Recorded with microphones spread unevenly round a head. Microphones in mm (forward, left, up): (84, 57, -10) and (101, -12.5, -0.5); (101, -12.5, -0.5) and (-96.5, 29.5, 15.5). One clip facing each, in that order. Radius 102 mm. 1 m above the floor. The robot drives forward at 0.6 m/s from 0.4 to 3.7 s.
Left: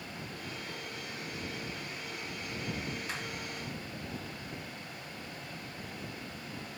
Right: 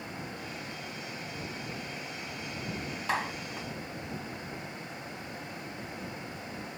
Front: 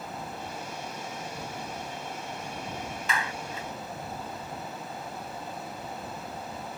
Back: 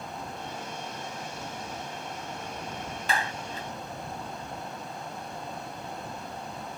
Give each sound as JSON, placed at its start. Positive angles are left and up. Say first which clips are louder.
{"t": 3.1, "sound": "a clap", "louder": "right 7 dB, back 3 dB", "azimuth_deg": -135}